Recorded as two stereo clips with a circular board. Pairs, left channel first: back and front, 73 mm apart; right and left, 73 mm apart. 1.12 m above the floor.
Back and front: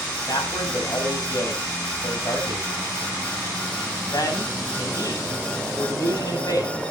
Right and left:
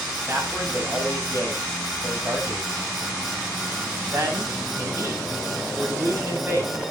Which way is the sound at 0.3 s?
145° left.